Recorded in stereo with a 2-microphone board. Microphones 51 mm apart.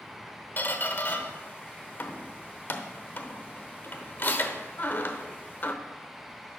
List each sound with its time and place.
0.6 s a squeak: 40° left (ahead or behind), 0.9 m